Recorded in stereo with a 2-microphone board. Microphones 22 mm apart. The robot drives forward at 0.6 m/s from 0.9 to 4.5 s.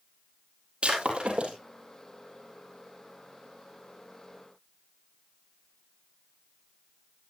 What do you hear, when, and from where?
0.8 s breaking glass: 50° right (ahead or behind), 5 m